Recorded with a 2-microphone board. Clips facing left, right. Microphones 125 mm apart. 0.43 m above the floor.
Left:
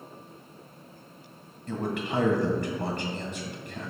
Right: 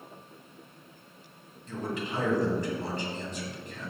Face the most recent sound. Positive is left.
turn(degrees=70)  # may be behind; listen again after turning